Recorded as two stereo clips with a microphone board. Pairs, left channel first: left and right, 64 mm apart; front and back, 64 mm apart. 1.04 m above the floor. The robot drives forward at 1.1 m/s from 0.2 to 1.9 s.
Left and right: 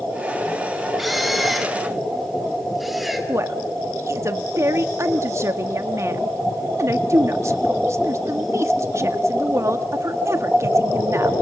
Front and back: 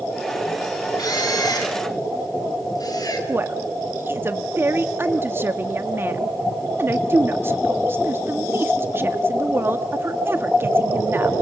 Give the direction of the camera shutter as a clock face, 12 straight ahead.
12 o'clock.